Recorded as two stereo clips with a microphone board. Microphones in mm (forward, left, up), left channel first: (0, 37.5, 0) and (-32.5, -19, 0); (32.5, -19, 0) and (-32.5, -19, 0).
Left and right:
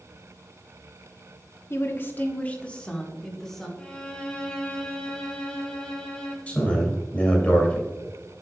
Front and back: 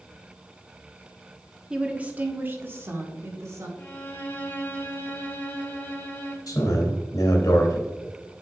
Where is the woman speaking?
105° left, 1.2 m; by 3.7 s 145° left, 2 m.